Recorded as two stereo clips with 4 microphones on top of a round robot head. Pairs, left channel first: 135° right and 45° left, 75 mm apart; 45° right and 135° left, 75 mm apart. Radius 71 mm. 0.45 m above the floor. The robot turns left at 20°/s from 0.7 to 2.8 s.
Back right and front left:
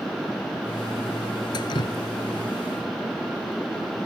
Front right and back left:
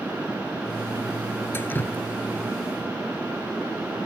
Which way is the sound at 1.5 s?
105° right.